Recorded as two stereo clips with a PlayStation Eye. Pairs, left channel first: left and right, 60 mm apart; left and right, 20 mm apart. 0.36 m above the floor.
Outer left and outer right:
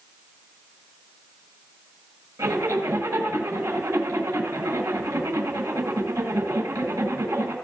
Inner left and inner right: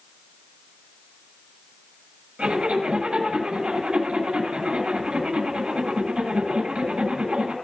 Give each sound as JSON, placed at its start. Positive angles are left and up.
{"t": 2.4, "sound": "a zipper", "side_deg": -70, "distance_m": 7.5}